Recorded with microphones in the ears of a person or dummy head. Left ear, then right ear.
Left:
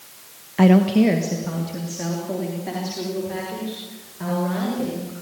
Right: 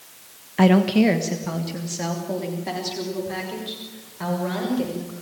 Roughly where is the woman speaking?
Centre.